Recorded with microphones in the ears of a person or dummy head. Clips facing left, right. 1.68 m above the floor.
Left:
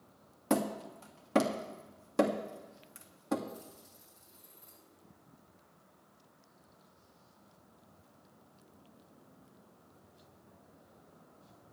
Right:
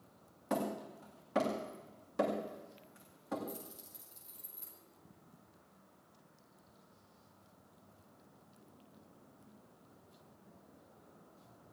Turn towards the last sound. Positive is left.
turn(degrees=-50)  # may be behind; listen again after turning